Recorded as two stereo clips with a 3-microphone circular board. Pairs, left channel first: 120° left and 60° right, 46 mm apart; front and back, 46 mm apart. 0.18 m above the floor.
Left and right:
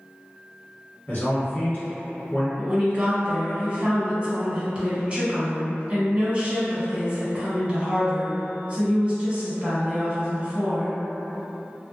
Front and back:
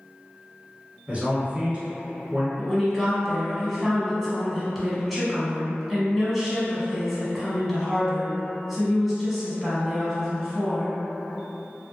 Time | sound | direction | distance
1.1 | a man speaking | 135° left | 1.3 m
2.6 | a woman speaking | 95° right | 1.2 m